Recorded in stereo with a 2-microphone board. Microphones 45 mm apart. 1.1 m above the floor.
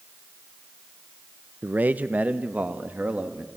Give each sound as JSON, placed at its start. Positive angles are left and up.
{"t": 1.6, "sound": "a man speaking", "side_deg": -40, "distance_m": 0.6}